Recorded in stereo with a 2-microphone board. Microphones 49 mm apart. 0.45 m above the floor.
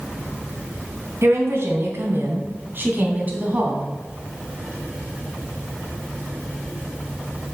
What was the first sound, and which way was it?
A woman speaking, 65° right (ahead or behind).